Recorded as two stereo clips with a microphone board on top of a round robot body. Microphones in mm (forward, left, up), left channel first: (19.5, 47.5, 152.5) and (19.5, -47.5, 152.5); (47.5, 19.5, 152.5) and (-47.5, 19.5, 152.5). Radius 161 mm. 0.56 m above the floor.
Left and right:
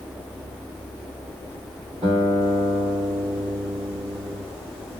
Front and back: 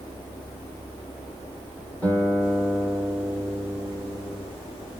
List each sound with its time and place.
2.0 s a guitar: 75° right, 1.8 m